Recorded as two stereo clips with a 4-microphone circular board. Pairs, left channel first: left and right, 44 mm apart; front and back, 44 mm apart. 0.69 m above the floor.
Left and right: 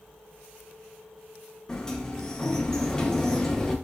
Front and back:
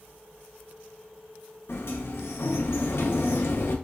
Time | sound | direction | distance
1.7 | a sliding door | 15° left | 0.6 m